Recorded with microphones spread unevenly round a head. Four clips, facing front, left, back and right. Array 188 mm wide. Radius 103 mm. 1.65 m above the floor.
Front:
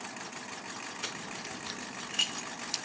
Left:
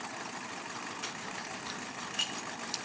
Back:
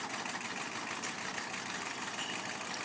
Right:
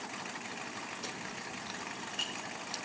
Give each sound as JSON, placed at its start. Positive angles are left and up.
{"t": 1.0, "sound": "keys jangling", "azimuth_deg": -50, "distance_m": 1.2}